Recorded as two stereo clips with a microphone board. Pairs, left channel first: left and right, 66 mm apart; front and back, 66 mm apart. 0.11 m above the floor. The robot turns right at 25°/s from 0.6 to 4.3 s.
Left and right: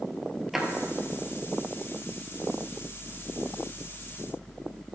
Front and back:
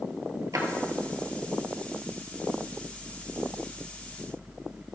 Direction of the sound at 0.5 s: 175° right.